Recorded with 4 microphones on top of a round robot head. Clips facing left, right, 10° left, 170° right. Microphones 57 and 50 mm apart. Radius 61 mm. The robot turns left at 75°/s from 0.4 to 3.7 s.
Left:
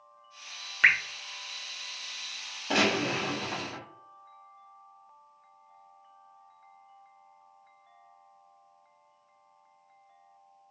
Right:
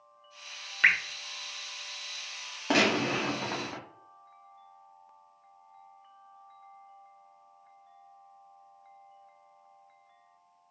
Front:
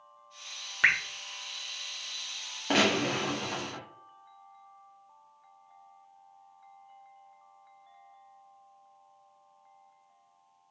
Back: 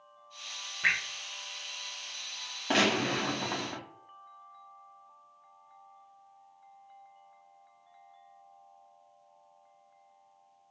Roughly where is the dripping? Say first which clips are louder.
Left 1 dB, front 4 dB; ahead.